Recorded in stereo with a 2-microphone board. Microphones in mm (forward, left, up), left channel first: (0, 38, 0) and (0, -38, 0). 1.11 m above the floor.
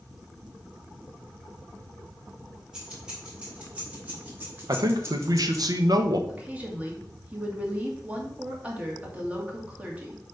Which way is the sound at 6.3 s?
20° right (ahead or behind).